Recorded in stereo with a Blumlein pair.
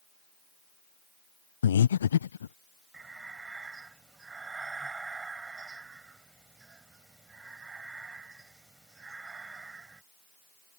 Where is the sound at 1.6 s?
65° left.